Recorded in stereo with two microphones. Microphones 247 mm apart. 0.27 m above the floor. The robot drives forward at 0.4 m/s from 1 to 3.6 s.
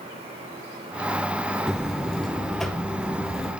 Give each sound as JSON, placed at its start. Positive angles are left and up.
{"t": 1.7, "sound": "a buzzer", "side_deg": 0, "distance_m": 0.6}